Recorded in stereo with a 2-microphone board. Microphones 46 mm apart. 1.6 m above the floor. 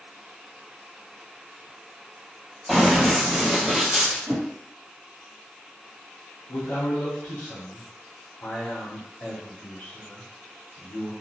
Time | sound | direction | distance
2.7 | running footsteps | centre (ahead or behind) | 1.9 m
4.3 | a whoosh | 40° right (ahead or behind) | 1.8 m
6.5 | a man speaking | 65° left (ahead or behind) | 0.9 m